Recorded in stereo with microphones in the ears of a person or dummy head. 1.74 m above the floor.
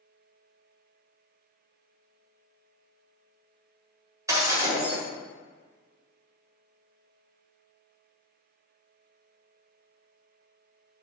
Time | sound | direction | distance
4.3 | breaking glass | 15° right (ahead or behind) | 2 m